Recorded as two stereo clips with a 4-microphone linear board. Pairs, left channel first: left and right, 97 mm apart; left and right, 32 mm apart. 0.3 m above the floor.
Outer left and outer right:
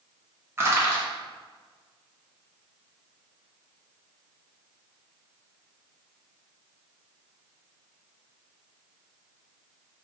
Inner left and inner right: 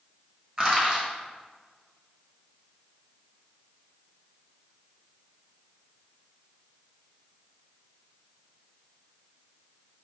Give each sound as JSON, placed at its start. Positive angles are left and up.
{"t": 0.6, "sound": "crushing", "side_deg": -25, "distance_m": 1.3}